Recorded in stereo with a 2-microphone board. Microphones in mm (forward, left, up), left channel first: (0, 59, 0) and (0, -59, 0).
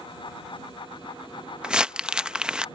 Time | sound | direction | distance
1.6 | crumpling | 10° right (ahead or behind) | ?